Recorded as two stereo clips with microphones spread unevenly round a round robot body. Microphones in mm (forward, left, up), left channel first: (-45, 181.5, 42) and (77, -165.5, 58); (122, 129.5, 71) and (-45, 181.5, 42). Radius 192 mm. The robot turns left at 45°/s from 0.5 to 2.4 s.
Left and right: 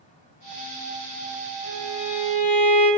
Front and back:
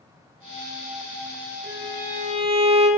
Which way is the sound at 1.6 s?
145° left.